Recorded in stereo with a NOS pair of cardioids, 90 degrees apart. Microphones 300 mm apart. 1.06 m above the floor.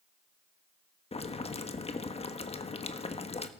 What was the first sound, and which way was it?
Boiling, 20° left.